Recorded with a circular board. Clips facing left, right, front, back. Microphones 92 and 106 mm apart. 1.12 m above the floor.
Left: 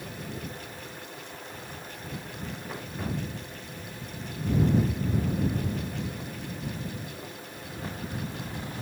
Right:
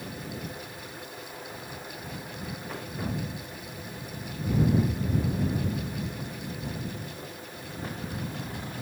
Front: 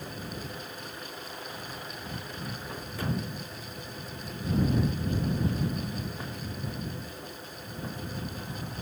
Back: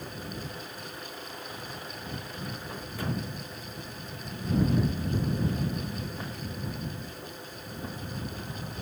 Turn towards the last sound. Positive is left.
No sound to turn to.